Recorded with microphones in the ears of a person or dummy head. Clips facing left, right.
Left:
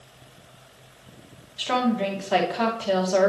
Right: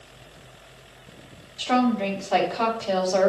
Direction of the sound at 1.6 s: 20° left (ahead or behind).